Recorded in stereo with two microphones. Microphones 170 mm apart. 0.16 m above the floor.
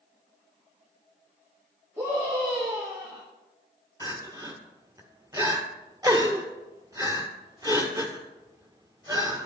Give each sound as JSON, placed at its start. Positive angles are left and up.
{"t": 2.0, "sound": "a scream", "side_deg": -20, "distance_m": 3.0}
{"t": 4.0, "sound": "crying", "side_deg": -20, "distance_m": 1.0}